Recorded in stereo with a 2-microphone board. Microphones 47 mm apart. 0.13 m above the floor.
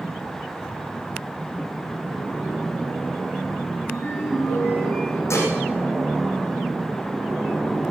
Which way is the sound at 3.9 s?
25° left (ahead or behind).